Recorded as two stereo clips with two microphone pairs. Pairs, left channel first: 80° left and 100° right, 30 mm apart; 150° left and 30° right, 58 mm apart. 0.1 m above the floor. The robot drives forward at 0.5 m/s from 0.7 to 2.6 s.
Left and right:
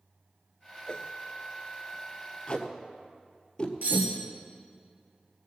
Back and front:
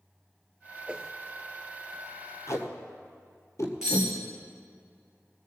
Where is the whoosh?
35° left, 0.6 m; by 1.1 s 50° left, 0.5 m.